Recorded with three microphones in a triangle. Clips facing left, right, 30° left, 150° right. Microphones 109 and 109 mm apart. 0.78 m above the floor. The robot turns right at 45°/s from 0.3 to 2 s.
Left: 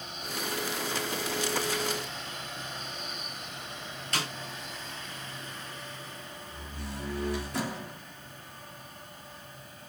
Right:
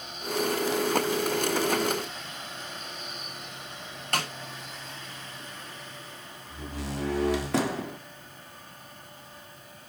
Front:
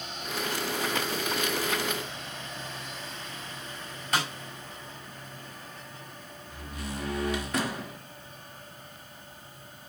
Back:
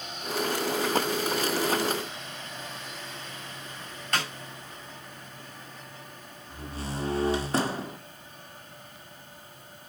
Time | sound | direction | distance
4.1 | a snare drum | 55° right | 6.5 m
6.5 | a door slam | 90° right | 1.7 m